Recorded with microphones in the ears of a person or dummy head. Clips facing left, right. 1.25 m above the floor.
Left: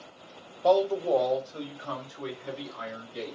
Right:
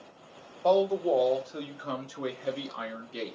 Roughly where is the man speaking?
Centre.